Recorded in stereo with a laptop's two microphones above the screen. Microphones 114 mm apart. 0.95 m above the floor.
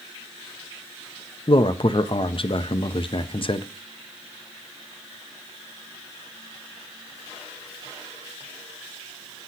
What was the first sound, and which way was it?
A man speaking, 50° left (ahead or behind).